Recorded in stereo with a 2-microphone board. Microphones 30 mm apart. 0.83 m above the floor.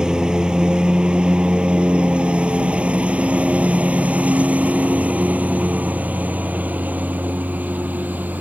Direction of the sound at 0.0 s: 25° right (ahead or behind).